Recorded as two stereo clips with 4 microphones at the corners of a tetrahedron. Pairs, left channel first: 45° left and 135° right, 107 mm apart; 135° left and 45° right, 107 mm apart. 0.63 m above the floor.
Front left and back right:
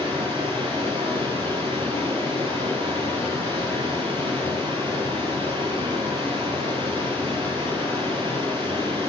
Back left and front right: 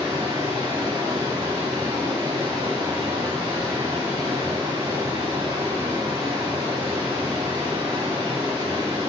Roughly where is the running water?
Right.